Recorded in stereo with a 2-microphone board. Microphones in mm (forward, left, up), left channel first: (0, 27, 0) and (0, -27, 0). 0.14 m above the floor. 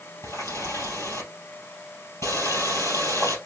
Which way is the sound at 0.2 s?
70° left (ahead or behind).